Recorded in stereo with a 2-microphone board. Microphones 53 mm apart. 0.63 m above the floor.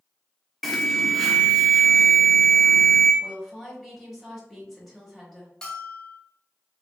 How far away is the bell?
About 0.8 m.